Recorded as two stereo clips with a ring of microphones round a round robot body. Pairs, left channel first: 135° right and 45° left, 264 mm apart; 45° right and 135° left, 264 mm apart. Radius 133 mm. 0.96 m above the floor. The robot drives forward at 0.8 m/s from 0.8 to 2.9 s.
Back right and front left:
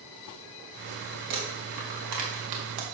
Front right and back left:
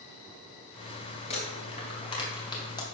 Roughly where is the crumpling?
Ahead.